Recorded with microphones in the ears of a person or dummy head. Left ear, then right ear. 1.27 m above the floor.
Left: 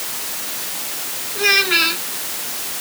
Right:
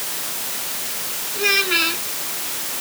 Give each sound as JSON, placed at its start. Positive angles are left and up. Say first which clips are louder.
{"t": 1.4, "sound": "a child speaking", "louder": "left 3 dB", "side_deg": 15}